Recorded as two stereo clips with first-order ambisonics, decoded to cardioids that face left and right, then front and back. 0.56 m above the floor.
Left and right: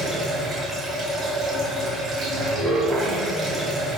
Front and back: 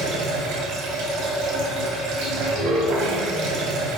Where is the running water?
160° right, 1.9 m.